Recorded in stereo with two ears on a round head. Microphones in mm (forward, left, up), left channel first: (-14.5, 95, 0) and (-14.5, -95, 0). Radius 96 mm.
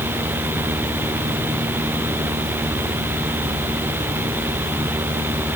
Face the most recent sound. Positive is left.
No sound to turn to.